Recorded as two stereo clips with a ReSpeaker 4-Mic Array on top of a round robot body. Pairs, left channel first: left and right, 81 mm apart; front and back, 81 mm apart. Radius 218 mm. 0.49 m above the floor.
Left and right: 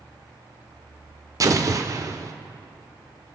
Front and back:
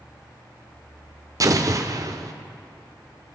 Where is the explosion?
135° right, 0.9 m.